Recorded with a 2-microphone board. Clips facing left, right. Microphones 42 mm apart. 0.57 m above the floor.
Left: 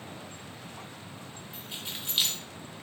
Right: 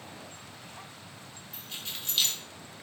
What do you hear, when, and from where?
1.5 s keys jangling: 15° left (ahead or behind), 1.2 m